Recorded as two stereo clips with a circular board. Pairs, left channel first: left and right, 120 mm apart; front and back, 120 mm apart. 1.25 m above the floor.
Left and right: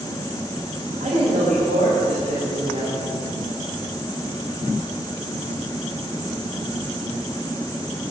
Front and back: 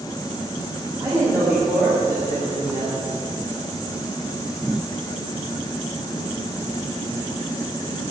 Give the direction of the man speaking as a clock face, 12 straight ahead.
4 o'clock.